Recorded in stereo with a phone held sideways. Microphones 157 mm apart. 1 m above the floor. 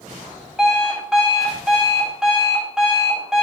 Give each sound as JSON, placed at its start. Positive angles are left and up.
{"t": 0.6, "sound": "an alarm clock", "side_deg": 0, "distance_m": 3.0}